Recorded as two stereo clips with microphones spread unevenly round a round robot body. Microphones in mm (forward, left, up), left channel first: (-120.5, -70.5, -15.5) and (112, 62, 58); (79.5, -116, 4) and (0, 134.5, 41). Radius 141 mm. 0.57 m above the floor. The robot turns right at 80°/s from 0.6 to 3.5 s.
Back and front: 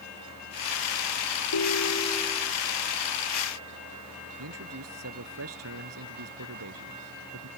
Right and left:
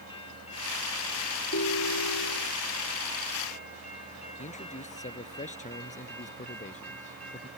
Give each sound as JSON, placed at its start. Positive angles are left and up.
{"t": 1.5, "sound": "a ringtone", "azimuth_deg": -125}
{"t": 4.4, "sound": "a man speaking", "azimuth_deg": -10}